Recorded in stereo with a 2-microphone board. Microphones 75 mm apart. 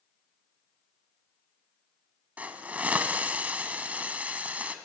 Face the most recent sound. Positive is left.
turn(degrees=-20)  # may be behind; listen again after turning